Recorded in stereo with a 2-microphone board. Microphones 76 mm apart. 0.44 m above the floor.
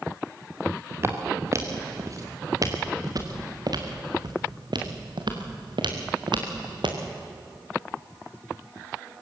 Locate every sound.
1.0 s footsteps: 35° right (ahead or behind), 3.5 m; by 7.0 s 85° right, 3.5 m